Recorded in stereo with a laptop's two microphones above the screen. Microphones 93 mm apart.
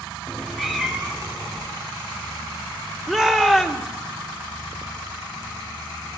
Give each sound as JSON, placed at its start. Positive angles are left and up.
{"t": 0.3, "sound": "a cat meowing", "side_deg": 10, "distance_m": 0.7}
{"t": 3.1, "sound": "a shout", "side_deg": -5, "distance_m": 1.5}